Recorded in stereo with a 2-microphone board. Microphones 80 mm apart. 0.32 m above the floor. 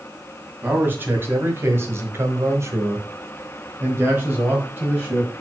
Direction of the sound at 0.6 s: 25° right (ahead or behind).